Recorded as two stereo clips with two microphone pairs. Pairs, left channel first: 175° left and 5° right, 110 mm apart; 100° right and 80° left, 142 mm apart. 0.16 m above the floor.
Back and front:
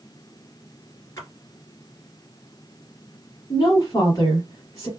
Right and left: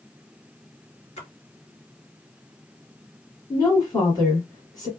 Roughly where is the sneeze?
I don't hear a sneeze.